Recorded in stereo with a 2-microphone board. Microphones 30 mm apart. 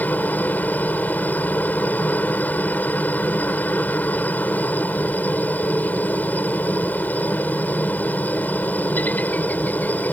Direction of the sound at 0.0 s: 65° left (ahead or behind).